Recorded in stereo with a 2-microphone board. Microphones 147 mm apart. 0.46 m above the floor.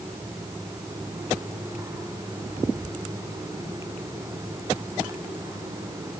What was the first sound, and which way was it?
Only background noise.